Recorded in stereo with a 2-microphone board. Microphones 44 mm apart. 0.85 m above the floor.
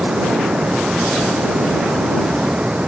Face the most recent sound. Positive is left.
turn(degrees=-25)  # may be behind; listen again after turning